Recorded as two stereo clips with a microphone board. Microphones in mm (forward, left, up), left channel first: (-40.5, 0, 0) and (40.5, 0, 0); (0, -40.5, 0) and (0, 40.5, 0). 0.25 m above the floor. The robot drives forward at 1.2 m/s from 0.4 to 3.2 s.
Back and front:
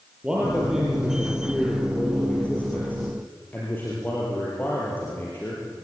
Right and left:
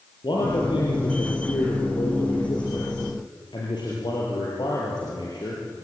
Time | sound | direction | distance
0.2 | a man speaking | 80° right | 5.5 m